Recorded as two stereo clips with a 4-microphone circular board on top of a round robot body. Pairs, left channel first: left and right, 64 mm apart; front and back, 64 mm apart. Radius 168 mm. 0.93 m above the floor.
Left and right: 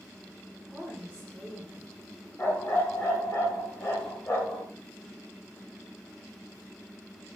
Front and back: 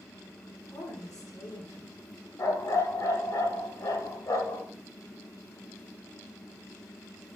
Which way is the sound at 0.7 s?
10° left.